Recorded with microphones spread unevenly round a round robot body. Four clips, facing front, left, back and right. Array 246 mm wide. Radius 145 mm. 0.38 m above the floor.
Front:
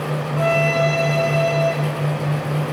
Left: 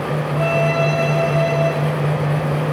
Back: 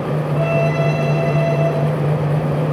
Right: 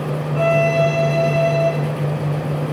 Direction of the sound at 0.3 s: 135° right.